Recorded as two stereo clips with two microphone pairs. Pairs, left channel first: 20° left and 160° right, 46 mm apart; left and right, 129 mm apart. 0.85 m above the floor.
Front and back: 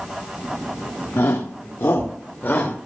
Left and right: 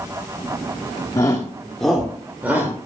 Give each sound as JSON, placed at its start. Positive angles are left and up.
{"t": 1.2, "sound": "a shout", "azimuth_deg": 30, "distance_m": 1.6}